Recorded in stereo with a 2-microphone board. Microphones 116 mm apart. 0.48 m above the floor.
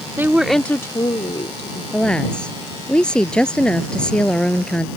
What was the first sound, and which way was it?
A woman speaking, 20° right (ahead or behind).